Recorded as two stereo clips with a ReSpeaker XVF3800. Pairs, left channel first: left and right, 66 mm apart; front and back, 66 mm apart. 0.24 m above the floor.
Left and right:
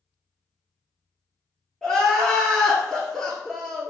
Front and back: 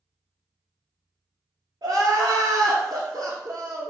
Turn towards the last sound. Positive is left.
turn(degrees=175)